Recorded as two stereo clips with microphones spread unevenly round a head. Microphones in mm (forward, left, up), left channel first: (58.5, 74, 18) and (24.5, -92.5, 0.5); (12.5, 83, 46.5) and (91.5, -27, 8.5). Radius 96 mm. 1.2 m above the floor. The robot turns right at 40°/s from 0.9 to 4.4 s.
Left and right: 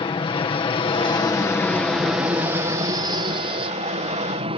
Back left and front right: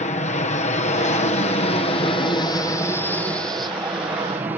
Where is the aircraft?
130° left; by 4.6 s 90° right.